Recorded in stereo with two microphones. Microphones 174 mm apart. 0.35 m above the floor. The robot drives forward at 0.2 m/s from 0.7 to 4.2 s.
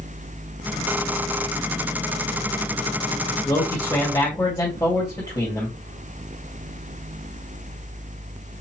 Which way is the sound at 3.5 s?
25° left (ahead or behind).